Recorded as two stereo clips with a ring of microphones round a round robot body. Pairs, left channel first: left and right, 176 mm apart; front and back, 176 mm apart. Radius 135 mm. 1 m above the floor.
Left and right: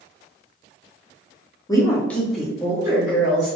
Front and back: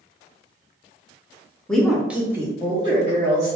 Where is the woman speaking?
75° left, 0.7 m; by 3.6 s 140° right, 1.0 m.